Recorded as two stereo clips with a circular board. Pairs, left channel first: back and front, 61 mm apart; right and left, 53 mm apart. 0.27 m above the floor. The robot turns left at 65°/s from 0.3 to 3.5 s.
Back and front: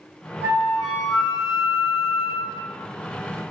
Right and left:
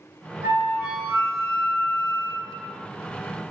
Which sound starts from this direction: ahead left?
A flute, at 0.4 s.